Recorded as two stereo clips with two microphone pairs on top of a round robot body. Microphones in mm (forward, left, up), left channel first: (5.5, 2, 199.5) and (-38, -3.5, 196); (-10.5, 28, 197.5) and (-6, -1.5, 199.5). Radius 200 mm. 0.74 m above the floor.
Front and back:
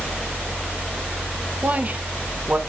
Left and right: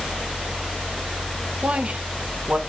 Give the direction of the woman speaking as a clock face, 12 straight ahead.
4 o'clock.